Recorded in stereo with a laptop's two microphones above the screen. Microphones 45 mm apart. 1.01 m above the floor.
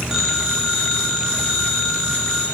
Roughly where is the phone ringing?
Centre.